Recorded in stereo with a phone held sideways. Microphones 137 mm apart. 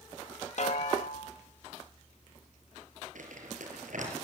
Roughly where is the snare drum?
Left.